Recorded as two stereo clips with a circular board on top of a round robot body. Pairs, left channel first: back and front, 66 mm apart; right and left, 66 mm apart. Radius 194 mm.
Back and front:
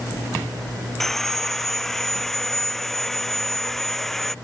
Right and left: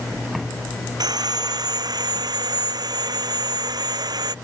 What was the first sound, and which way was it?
Sawing, 95° left.